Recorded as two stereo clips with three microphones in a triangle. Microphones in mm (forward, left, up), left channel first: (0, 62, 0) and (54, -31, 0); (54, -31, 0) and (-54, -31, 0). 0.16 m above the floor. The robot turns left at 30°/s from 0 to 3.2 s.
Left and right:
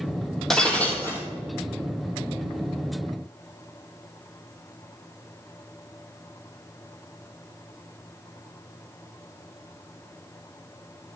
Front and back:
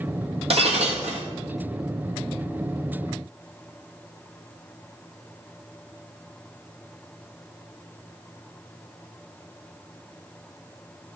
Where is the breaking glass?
155° right, 1.3 m; by 1.2 s 175° right, 1.3 m.